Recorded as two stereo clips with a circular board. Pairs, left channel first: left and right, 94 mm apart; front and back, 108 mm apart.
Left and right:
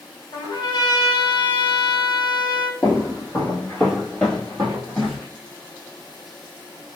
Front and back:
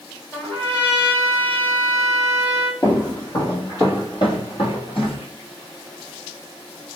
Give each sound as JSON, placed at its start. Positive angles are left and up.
{"t": 0.3, "sound": "a trumpet", "azimuth_deg": 65, "distance_m": 1.9}
{"t": 2.8, "sound": "footsteps", "azimuth_deg": 45, "distance_m": 1.8}